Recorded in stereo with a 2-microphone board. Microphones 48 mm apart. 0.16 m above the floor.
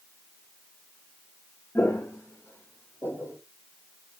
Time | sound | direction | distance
1.8 | footsteps | 75° left (ahead or behind) | 0.9 m